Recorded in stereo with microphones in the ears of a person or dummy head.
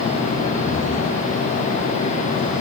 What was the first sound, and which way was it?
Only background noise.